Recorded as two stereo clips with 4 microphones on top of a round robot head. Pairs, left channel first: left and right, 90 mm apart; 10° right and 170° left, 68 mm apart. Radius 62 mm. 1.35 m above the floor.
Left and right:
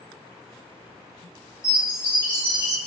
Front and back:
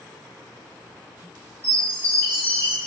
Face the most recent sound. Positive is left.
turn(degrees=40)